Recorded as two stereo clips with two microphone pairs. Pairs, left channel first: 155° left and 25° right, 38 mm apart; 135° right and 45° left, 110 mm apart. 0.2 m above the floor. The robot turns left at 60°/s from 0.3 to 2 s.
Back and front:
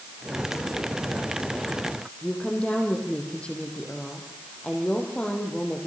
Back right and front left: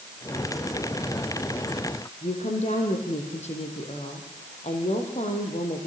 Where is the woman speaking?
140° right, 7.5 m.